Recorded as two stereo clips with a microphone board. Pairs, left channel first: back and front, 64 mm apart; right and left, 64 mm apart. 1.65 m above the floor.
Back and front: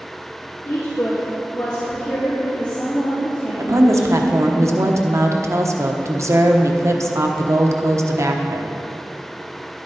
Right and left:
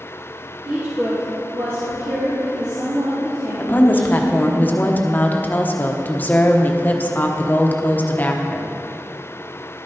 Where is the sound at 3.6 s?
35° right, 1.0 m.